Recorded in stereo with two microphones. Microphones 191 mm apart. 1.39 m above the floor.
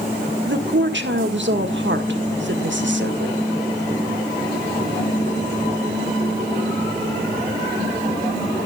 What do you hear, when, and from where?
0.5 s a woman speaking: 75° right (ahead or behind), 1.7 m